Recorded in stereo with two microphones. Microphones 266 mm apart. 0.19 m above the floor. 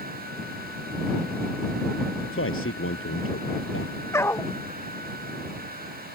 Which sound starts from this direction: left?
A man speaking, at 2.3 s.